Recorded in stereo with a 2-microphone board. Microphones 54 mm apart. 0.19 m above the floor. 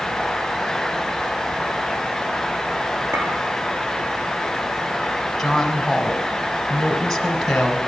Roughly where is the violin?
No violin in this recording.